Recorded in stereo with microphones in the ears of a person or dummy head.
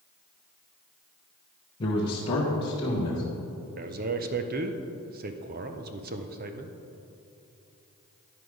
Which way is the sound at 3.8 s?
40° right (ahead or behind).